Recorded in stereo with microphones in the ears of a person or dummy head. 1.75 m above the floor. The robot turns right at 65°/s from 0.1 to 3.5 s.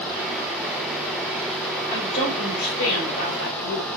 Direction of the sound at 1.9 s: 20° left.